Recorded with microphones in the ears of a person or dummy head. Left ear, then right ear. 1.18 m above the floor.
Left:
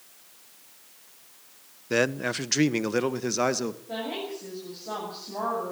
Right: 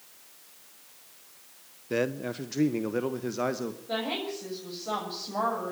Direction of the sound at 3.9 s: 35° right (ahead or behind).